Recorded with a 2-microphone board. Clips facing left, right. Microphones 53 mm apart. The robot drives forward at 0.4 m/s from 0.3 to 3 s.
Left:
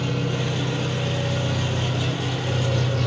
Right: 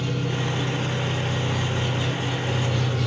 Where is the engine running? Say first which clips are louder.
Left 1 dB; 75° left (ahead or behind), 1.9 m; by 3.1 s 55° left (ahead or behind), 2.5 m.